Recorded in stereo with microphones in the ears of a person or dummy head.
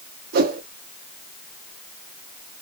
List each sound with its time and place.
0.3 s a whoosh: 50° right (ahead or behind), 0.5 m